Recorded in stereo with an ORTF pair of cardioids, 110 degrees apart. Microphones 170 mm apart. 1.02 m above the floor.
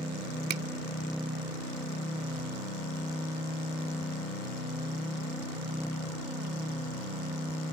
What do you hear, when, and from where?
0.5 s a finger snap: 70° right